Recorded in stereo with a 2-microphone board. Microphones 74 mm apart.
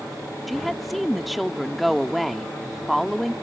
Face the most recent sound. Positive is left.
turn(degrees=0)  # may be behind; listen again after turning